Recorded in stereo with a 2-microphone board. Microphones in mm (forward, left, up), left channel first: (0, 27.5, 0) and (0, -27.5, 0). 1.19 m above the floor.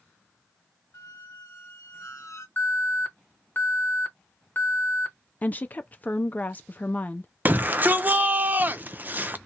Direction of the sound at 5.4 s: 35° left (ahead or behind).